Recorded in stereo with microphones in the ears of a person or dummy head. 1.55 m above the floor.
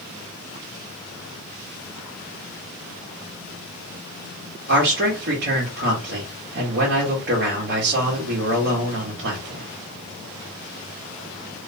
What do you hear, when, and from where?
4.7 s a man speaking: 60° right (ahead or behind), 1.5 m